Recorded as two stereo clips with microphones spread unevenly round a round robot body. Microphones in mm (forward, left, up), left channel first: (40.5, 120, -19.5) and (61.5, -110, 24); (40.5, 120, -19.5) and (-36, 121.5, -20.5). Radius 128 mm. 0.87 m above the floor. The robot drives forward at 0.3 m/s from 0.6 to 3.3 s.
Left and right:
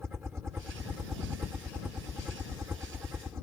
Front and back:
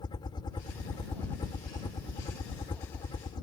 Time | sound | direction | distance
0.0 | a helicopter | straight ahead | ?